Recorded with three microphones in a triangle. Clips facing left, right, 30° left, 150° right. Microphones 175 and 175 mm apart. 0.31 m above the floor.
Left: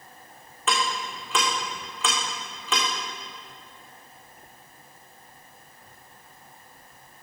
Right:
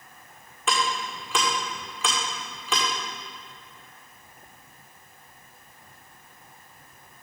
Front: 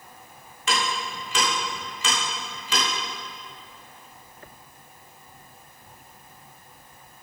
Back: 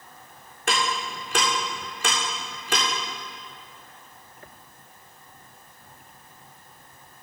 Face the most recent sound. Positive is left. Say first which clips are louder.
# even, back 1 dB
turn(degrees=180)